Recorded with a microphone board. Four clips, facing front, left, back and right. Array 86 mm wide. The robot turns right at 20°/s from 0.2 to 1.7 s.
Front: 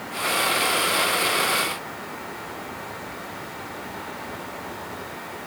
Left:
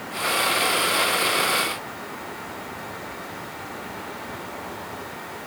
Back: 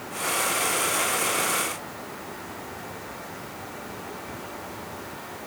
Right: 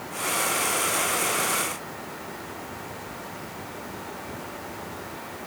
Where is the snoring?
I don't hear snoring.